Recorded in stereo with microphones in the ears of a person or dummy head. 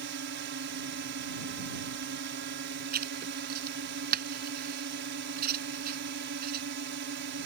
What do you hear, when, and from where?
0.0 s a drone: 55° right (ahead or behind)
2.9 s writing: 50° right (ahead or behind)